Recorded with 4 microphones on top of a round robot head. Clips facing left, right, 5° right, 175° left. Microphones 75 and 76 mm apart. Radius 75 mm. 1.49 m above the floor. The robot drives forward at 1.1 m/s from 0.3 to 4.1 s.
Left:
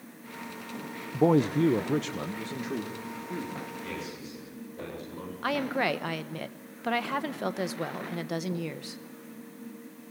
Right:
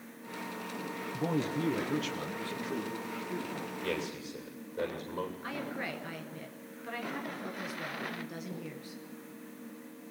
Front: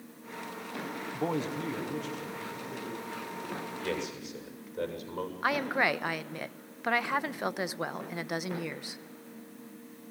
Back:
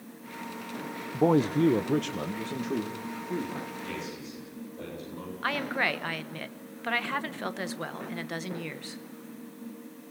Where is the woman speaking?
65° left, 1.0 m.